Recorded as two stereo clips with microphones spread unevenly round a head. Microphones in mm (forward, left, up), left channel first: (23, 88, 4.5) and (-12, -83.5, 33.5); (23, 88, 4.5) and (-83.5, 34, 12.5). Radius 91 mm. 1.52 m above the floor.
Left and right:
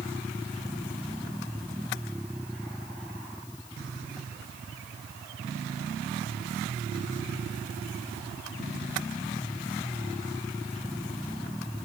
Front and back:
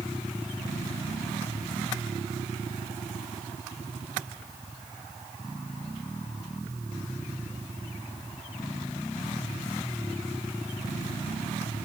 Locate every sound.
Only background noise.